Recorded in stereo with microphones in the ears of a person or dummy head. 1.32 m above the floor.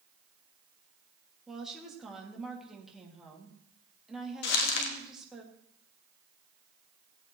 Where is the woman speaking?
Centre (ahead or behind), 2.5 m.